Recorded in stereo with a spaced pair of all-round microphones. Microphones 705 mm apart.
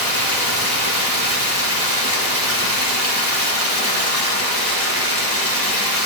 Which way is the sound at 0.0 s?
20° right (ahead or behind).